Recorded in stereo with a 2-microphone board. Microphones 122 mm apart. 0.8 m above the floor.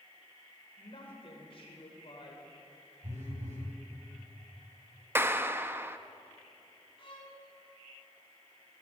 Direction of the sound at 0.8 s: 50° left (ahead or behind).